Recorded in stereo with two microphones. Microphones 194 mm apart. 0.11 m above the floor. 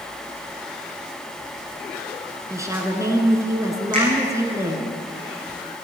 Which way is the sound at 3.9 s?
45° right (ahead or behind).